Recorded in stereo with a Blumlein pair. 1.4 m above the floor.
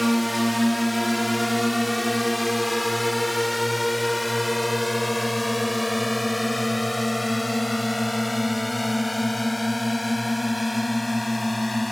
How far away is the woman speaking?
No woman speaking in this recording.